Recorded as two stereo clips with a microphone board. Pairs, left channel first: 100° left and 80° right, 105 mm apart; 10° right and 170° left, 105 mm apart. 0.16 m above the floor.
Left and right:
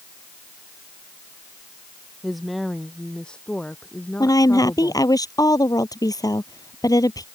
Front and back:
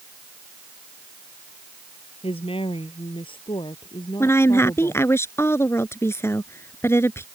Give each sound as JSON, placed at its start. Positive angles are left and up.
{"t": 2.2, "sound": "a woman speaking", "azimuth_deg": 10}
{"t": 4.2, "sound": "a woman speaking", "azimuth_deg": 50}